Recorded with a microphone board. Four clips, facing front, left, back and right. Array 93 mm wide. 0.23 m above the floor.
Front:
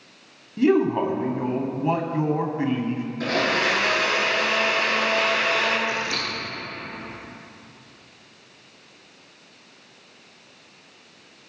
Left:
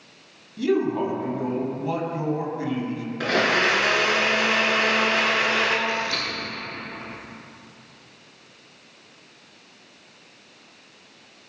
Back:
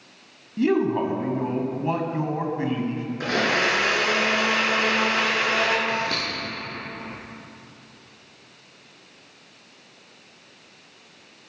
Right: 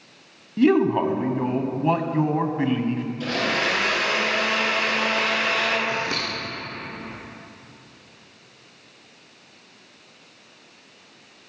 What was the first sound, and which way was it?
A man speaking, 85° right.